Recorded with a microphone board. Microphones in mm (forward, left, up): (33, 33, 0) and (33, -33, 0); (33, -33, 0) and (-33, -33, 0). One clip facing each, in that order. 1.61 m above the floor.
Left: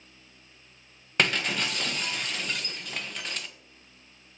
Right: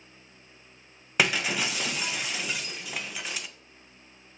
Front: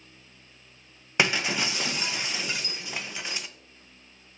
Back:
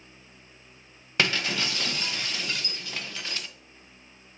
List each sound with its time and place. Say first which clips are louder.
1.2 s breaking glass: right 1 dB, front 1 dB; 20° right, 0.6 m